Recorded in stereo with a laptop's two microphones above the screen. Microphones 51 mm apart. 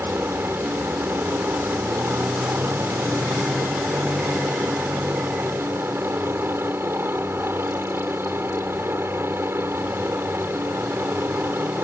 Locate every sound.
0.0 s a helicopter: 50° right (ahead or behind)